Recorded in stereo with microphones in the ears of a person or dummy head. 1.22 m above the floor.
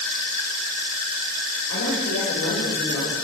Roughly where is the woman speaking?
Left.